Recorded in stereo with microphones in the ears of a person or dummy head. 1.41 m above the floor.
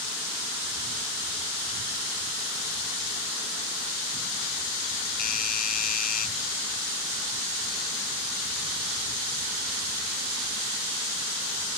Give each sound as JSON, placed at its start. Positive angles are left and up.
{"t": 5.2, "sound": "a doorbell", "side_deg": 50}